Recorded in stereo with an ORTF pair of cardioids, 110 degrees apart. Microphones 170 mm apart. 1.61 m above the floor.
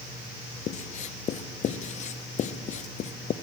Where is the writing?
40° left, 0.5 m.